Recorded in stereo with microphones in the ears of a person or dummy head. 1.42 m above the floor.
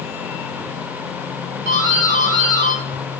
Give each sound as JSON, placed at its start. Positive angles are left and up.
{"t": 1.6, "sound": "a doorbell", "side_deg": -60, "distance_m": 3.5}